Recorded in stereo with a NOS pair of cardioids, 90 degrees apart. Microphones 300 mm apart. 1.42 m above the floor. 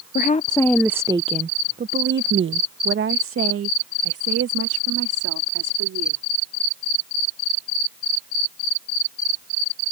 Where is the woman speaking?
35° left; by 6.2 s 55° right.